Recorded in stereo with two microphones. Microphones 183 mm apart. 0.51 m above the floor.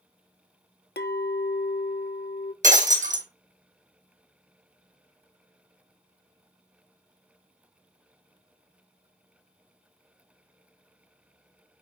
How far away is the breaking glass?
About 1.5 m.